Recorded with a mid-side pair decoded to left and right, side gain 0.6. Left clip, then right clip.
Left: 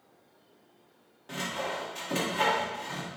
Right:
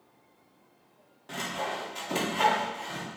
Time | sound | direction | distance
1.3 | sawing | 10° right | 1.0 m